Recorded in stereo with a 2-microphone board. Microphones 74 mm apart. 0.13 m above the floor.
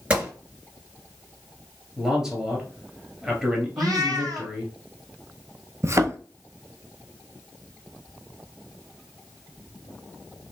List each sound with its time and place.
0.1 s a gunshot: 15° right (ahead or behind), 3 m
2.0 s a man speaking: 10° right (ahead or behind), 1.6 m
3.8 s a cat meowing: 55° right (ahead or behind), 1.3 m
5.8 s a thud: 40° right (ahead or behind), 0.6 m